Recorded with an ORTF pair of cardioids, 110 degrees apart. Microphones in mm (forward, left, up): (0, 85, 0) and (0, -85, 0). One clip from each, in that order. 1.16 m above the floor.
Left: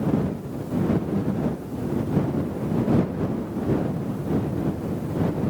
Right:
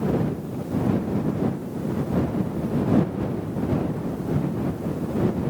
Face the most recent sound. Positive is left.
No sound to turn to.